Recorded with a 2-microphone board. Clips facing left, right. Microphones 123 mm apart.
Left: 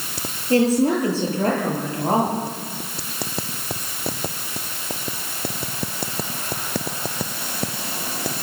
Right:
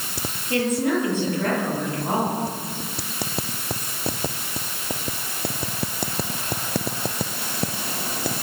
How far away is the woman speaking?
About 10 m.